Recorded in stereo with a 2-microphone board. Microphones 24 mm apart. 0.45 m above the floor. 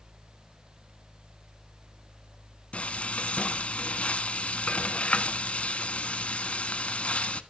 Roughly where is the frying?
Left.